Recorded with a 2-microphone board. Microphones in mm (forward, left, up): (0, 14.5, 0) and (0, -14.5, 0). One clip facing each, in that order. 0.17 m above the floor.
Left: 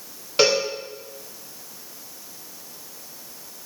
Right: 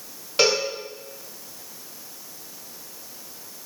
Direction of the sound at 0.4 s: 5° left (ahead or behind).